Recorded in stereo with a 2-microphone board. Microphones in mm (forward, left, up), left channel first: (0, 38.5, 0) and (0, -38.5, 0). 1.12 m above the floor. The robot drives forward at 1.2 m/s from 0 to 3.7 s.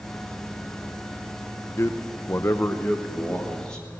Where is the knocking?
I don't hear knocking.